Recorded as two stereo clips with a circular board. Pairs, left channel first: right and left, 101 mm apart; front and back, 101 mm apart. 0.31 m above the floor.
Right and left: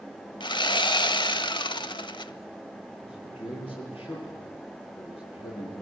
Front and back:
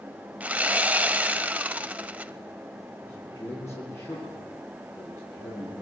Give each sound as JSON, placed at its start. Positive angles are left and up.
{"t": 0.4, "sound": "sawing", "azimuth_deg": -105, "distance_m": 0.6}
{"t": 3.0, "sound": "a man speaking", "azimuth_deg": -60, "distance_m": 8.5}